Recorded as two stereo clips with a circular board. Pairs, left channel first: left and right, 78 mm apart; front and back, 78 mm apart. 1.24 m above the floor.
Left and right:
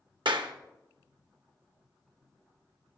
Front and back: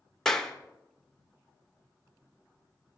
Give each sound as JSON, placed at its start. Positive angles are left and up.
{"t": 0.2, "sound": "a clap", "azimuth_deg": -85, "distance_m": 1.0}